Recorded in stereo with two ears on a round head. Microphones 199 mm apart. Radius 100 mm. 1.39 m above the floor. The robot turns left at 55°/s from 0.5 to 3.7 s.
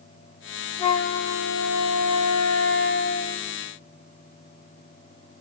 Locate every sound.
0.8 s a flute: 160° left, 1.5 m; by 3.5 s 10° left, 1.5 m